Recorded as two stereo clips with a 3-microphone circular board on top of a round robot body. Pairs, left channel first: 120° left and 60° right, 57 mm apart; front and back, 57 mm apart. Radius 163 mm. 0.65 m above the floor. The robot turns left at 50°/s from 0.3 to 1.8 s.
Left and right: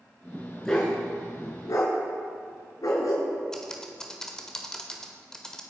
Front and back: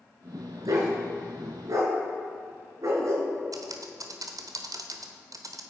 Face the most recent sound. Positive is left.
turn(degrees=-155)